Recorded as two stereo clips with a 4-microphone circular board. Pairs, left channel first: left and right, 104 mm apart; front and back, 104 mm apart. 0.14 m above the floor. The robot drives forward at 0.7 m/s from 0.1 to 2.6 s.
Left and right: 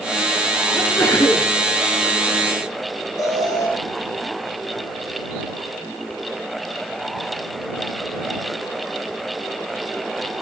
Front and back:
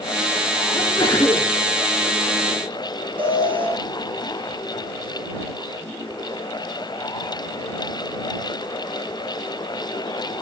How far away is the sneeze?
About 2.5 m.